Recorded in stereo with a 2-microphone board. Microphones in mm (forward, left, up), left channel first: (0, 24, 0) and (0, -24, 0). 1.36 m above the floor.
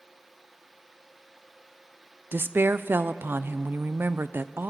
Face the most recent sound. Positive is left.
turn(degrees=-50)  # may be behind; listen again after turning